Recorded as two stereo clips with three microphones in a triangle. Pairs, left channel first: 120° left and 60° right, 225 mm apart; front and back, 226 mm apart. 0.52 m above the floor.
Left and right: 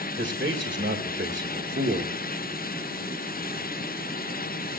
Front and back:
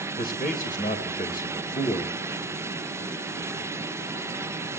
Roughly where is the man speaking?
Ahead right.